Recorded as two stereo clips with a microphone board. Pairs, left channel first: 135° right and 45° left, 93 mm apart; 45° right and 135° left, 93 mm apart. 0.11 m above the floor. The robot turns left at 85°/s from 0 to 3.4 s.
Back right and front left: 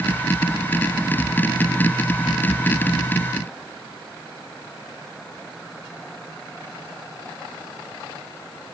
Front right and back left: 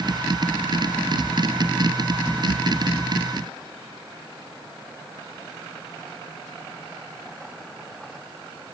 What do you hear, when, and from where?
Only background noise.